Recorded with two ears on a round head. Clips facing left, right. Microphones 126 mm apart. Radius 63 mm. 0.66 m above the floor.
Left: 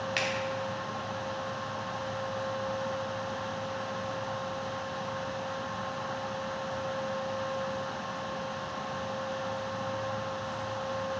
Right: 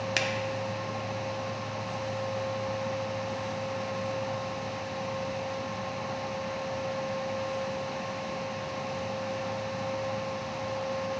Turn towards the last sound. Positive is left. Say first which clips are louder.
# right 1 dB
turn(degrees=-55)  # may be behind; listen again after turning